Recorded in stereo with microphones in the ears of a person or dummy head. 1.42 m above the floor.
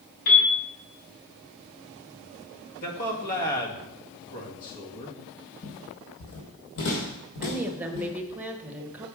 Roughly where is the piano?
Left.